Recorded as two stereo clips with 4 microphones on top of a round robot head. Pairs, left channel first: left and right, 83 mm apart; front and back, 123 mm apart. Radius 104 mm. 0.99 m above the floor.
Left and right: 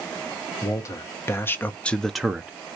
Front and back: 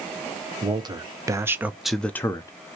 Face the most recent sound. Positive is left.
turn(degrees=-25)